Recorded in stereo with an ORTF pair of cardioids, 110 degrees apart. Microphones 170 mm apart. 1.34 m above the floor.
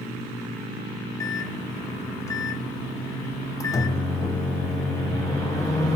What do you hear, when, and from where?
1.2 s a microwave: 20° left, 0.6 m